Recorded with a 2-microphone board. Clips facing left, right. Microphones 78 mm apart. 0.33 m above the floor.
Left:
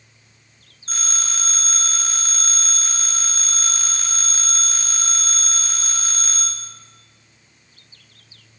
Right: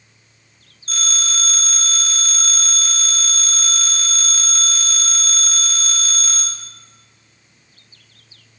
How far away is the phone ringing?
About 1.7 m.